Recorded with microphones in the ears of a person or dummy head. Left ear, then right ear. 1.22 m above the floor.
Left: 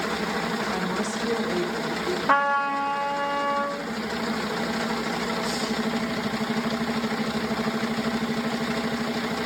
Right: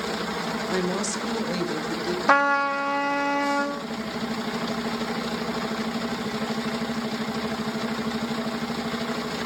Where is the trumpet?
75° right (ahead or behind), 0.9 m.